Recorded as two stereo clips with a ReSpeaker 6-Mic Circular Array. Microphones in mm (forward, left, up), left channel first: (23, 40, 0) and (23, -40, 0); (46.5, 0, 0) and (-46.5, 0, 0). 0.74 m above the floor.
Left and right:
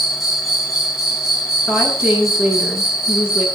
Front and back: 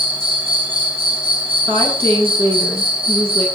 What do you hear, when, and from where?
0.0 s an insect: 175° right, 5 m
1.7 s a woman speaking: 170° right, 9.5 m